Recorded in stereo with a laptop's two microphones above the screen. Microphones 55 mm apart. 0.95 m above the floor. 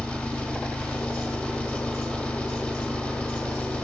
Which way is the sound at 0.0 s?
25° left (ahead or behind).